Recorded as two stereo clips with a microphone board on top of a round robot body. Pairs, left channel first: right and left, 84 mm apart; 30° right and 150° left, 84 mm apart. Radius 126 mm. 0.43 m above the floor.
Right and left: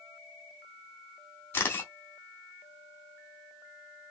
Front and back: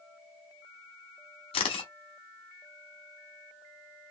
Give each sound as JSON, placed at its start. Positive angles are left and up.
{"t": 1.5, "sound": "a camera shutter", "azimuth_deg": -25, "distance_m": 0.6}